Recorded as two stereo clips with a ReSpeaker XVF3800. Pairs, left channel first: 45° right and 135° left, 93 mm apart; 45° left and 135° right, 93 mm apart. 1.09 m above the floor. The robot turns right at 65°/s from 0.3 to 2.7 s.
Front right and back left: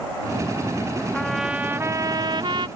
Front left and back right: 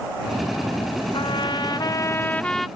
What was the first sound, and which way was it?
A trumpet, 35° left.